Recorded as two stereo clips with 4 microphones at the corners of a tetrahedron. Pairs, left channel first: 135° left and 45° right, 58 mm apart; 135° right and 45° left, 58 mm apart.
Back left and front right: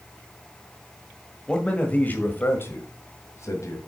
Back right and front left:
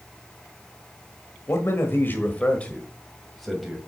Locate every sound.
1.5 s a man speaking: 155° right, 1.7 m; by 3.8 s 130° left, 2 m